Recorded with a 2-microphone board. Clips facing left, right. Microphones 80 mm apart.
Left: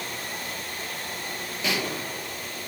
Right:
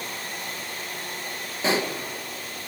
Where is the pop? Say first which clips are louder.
Right 5 dB; 35° right (ahead or behind), 2 m.